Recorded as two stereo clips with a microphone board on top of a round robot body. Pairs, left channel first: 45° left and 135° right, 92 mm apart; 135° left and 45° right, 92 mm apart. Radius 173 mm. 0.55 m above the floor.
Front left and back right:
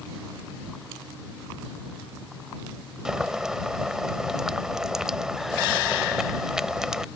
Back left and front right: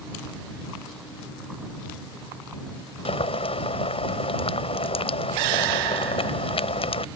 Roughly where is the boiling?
Behind left.